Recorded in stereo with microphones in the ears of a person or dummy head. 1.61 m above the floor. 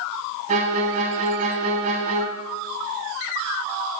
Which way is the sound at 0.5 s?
45° right (ahead or behind).